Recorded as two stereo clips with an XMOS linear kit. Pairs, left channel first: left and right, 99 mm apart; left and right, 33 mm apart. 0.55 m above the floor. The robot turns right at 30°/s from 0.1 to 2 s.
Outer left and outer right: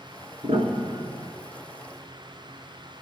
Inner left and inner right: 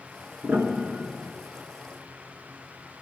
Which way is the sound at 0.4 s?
80° right.